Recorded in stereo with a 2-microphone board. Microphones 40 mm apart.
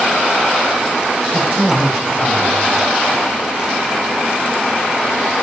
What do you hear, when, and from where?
1.3 s a man speaking: 20° right (ahead or behind), 5 m